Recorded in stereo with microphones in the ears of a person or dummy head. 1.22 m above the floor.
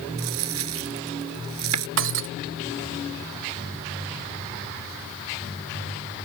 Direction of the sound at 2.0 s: 65° right (ahead or behind).